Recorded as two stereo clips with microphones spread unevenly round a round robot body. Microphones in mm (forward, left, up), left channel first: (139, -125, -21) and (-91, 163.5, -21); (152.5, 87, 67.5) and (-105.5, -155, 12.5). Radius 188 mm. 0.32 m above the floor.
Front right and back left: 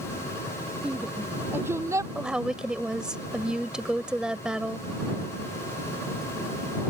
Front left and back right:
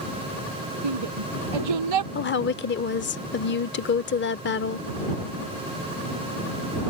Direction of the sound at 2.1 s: 45° left.